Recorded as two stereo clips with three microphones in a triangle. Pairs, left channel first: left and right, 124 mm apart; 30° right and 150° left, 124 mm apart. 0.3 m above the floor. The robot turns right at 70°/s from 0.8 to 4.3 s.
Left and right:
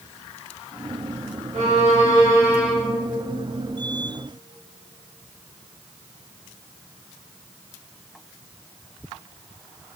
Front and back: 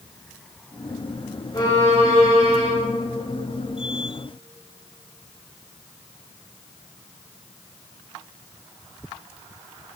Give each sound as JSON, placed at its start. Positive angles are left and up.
{"t": 1.5, "sound": "a violin", "azimuth_deg": -85, "distance_m": 3.5}